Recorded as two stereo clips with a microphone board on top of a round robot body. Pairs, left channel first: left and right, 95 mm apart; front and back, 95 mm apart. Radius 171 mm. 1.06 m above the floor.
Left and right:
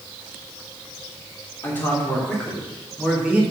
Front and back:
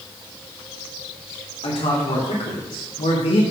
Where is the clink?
No clink in this recording.